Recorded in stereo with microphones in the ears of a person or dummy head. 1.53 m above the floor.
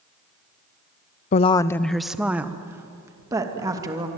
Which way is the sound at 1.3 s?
40° left (ahead or behind).